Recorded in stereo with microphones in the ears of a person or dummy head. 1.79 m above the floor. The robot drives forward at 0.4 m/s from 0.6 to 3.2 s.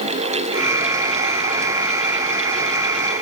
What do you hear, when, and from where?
Only background noise.